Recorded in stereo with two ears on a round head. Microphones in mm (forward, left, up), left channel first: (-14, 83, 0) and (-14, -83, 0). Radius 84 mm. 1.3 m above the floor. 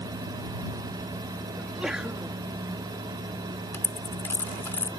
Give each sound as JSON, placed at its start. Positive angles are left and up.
{"t": 1.6, "sound": "a sneeze", "side_deg": -5}
{"t": 3.7, "sound": "a dropped coin", "side_deg": 10}